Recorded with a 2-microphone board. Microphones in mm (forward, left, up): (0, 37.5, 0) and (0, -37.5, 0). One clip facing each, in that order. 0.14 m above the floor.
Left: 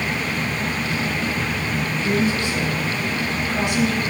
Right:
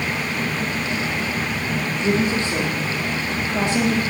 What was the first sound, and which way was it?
A woman speaking, 35° right (ahead or behind).